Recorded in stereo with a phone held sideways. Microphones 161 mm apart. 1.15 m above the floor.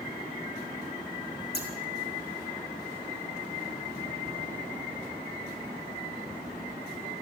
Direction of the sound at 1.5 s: 75° left (ahead or behind).